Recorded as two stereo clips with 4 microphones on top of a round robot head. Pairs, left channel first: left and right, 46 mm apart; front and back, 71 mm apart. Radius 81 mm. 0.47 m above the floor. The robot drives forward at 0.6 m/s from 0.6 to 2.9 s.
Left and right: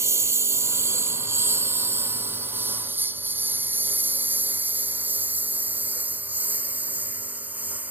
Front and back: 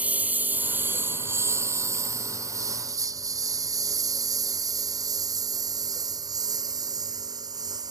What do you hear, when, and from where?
0.0 s a lawn mower: 110° right; by 7.9 s 145° right